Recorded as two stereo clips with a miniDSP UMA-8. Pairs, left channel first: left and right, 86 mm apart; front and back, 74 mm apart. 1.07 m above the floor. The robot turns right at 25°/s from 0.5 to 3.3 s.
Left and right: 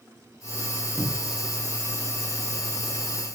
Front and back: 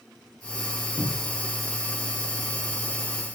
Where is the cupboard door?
10° right, 1.3 m; by 1.4 s straight ahead, 1.3 m.